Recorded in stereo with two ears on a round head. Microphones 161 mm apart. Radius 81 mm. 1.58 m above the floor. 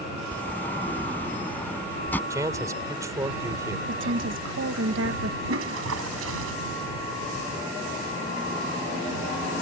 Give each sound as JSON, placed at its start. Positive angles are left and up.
{"t": 0.3, "sound": "a sliding door", "side_deg": 10}
{"t": 2.3, "sound": "a man speaking", "side_deg": -15}
{"t": 3.9, "sound": "a woman speaking", "side_deg": -65}
{"t": 5.5, "sound": "a toilet flushing", "side_deg": -85}